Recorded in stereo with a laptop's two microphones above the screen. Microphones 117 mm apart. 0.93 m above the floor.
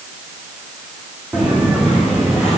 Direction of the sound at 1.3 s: 10° right (ahead or behind).